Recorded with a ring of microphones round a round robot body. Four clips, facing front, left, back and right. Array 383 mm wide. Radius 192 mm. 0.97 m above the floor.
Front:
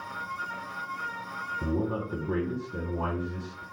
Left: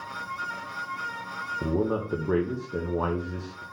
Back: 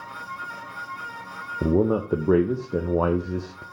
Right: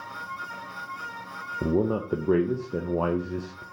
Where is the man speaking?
165° right, 0.6 m.